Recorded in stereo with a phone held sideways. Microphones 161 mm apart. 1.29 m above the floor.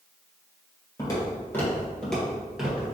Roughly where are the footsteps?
Left.